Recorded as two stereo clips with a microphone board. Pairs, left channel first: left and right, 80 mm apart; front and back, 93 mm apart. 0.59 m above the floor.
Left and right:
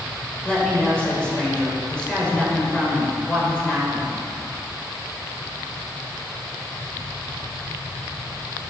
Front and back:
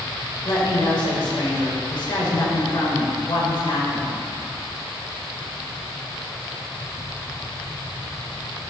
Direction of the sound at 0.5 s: 15° left.